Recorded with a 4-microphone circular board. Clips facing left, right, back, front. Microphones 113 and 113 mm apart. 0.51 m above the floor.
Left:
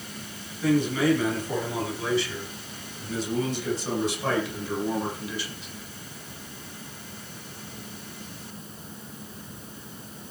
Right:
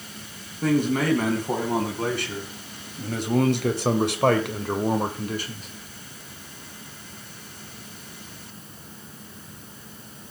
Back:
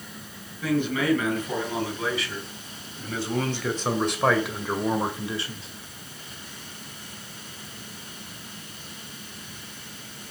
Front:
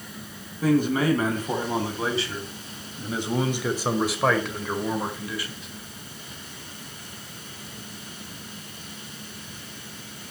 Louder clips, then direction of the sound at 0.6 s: Even, front 3 dB; 50° right.